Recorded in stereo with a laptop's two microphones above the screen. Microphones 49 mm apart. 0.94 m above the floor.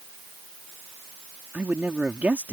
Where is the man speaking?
40° right (ahead or behind).